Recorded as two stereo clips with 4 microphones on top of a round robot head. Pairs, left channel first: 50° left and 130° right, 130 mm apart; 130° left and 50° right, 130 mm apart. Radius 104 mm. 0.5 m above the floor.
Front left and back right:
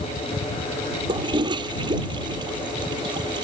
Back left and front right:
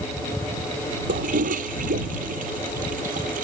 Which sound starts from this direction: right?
A toilet flushing, at 1.1 s.